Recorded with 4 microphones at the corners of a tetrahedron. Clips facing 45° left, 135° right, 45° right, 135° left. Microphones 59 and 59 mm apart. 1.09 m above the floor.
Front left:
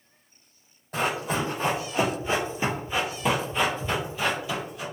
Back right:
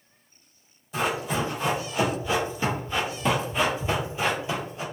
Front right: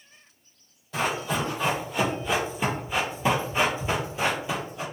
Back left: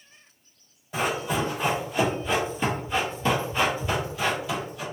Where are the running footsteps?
55° left, 1.7 m; by 4.8 s 95° right, 1.4 m.